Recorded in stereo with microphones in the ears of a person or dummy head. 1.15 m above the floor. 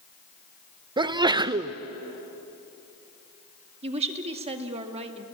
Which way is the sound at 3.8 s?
35° right (ahead or behind).